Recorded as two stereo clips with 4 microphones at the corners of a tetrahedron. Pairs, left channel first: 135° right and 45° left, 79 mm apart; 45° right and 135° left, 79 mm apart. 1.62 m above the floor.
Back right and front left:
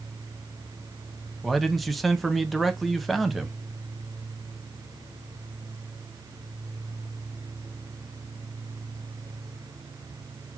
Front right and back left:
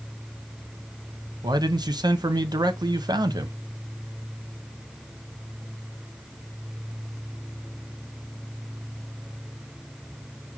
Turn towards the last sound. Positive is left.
turn(degrees=135)